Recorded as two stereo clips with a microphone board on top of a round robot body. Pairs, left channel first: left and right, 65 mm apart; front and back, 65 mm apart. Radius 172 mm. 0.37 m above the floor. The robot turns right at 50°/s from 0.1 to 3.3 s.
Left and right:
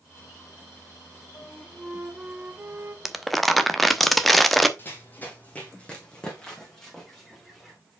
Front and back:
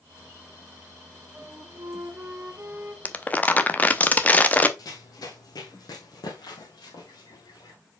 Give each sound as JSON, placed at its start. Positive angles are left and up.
{"t": 1.3, "sound": "a flute", "azimuth_deg": 160, "distance_m": 1.5}
{"t": 3.0, "sound": "crumpling", "azimuth_deg": -10, "distance_m": 1.1}
{"t": 4.8, "sound": "running footsteps", "azimuth_deg": 30, "distance_m": 1.5}